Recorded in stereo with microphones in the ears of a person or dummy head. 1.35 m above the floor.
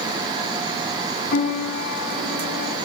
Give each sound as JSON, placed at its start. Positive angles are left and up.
{"t": 1.3, "sound": "a piano", "side_deg": 55, "distance_m": 3.0}